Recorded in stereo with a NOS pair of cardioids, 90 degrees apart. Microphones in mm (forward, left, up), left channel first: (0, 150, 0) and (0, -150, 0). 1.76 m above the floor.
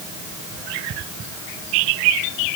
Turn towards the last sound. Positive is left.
No sound to turn to.